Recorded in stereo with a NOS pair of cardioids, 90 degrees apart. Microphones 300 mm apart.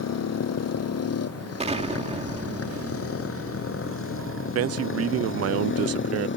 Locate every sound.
0.0 s a motorcycle: 55° left; by 6.4 s 40° left
1.6 s an explosion: 20° right
4.5 s a man speaking: 55° right